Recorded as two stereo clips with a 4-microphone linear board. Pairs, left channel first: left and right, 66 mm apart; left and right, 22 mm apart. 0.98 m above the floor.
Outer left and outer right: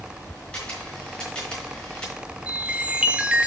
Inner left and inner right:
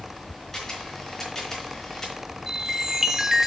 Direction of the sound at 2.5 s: 20° right (ahead or behind).